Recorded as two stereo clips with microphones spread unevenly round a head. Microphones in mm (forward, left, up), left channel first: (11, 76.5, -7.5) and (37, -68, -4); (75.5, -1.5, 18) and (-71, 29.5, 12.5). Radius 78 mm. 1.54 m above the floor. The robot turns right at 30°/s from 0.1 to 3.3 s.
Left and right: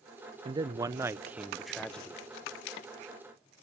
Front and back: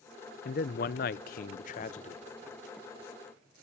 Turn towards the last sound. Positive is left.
turn(degrees=60)